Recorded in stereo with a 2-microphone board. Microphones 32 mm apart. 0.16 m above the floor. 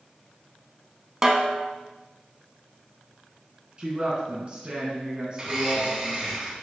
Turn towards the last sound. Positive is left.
turn(degrees=-20)  # may be behind; listen again after turning